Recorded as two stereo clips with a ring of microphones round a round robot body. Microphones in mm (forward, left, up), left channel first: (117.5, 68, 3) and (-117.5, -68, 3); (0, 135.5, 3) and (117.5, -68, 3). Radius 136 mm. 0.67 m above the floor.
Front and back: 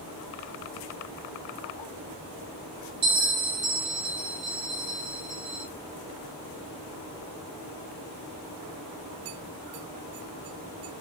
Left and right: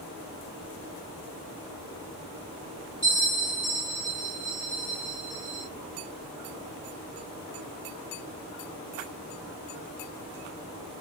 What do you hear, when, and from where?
3.0 s a bell: 155° right, 1.7 m